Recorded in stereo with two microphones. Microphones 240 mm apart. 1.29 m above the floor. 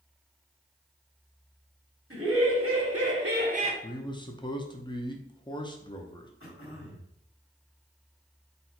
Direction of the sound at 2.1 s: 55° right (ahead or behind).